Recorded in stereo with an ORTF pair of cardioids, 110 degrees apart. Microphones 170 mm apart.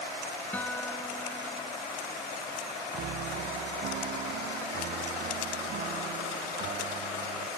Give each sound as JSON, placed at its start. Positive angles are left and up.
{"t": 0.5, "sound": "a guitar", "azimuth_deg": 10}
{"t": 2.9, "sound": "a piano", "azimuth_deg": -70}